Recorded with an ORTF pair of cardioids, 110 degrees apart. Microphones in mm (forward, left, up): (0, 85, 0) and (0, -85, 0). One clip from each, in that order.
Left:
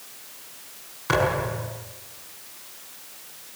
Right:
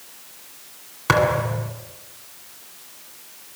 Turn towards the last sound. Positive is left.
turn(degrees=-50)